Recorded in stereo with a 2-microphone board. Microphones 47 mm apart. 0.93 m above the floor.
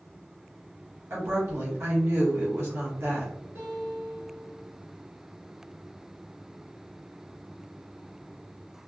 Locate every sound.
1.1 s a woman speaking: 70° right (ahead or behind), 1.3 m
3.5 s a guitar: 60° right (ahead or behind), 1.8 m